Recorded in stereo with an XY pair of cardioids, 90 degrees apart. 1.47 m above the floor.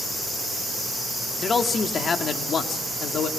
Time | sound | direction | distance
1.4 | a man speaking | 45° left | 2.5 m